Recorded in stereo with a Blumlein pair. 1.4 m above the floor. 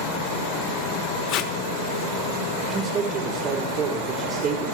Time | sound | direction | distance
1.3 | tape being pulled | 40° left | 0.9 m
2.6 | a man speaking | 25° right | 3 m